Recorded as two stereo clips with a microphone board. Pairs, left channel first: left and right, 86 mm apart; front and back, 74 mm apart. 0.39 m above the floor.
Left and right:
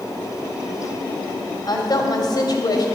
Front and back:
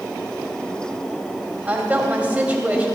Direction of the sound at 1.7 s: 110° left.